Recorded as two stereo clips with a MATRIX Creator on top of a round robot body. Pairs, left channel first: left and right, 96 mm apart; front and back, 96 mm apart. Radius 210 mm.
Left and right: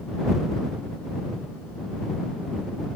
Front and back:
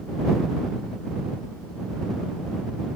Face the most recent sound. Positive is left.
No sound to turn to.